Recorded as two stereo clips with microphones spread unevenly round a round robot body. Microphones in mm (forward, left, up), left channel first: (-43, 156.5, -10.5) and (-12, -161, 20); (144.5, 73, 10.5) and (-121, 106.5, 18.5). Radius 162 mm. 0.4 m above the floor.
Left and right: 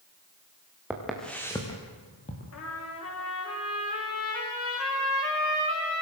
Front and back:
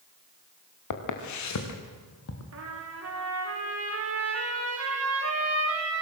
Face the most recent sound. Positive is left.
turn(degrees=140)